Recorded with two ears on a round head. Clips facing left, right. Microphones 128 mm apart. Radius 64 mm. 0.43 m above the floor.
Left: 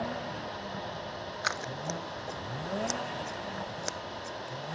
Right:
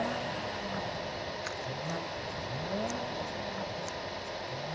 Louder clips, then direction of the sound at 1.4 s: Left 1 dB; 75° left (ahead or behind).